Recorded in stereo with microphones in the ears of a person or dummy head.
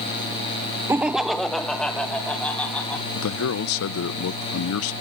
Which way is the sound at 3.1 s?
70° left (ahead or behind).